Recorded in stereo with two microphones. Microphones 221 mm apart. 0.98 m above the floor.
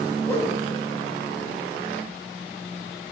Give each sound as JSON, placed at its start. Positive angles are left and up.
{"t": 0.3, "sound": "a whoosh", "side_deg": 10, "distance_m": 1.9}